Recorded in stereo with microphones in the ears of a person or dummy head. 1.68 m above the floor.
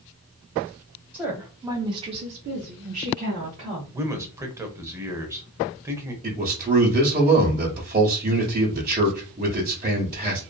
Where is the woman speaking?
15° right (ahead or behind), 1.3 m; by 4.0 s 30° right (ahead or behind), 1.4 m.